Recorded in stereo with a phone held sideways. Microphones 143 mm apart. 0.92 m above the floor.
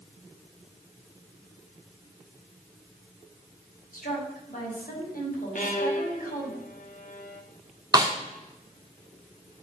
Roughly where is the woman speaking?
Left.